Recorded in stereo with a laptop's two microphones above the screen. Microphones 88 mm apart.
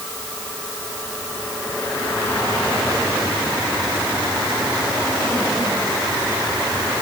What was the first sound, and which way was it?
Only background noise.